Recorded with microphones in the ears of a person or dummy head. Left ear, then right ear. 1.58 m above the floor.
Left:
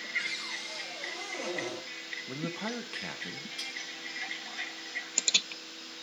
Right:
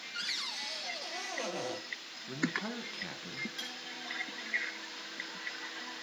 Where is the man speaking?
20° left (ahead or behind), 1.0 m.